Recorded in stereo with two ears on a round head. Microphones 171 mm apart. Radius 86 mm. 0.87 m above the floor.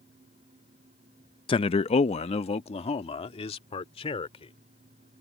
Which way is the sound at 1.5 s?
25° left (ahead or behind).